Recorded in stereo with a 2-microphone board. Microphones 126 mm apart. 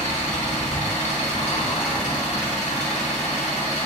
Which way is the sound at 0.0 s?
75° left (ahead or behind).